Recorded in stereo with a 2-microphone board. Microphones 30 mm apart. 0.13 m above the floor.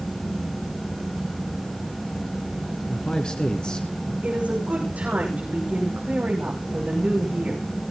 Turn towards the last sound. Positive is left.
turn(degrees=-50)  # may be behind; listen again after turning